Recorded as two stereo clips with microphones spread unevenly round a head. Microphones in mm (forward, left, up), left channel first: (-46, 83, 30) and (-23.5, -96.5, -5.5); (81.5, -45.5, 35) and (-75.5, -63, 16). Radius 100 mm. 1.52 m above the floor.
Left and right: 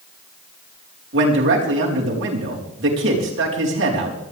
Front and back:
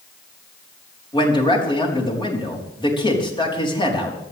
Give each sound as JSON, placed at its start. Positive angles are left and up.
{"t": 1.1, "sound": "a man speaking", "azimuth_deg": -55, "distance_m": 4.5}